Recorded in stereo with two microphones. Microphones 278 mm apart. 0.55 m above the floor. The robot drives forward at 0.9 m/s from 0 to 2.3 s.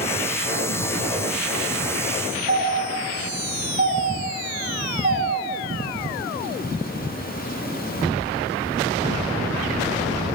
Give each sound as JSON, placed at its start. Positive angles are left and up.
{"t": 2.5, "sound": "a doorbell", "side_deg": -40, "distance_m": 2.5}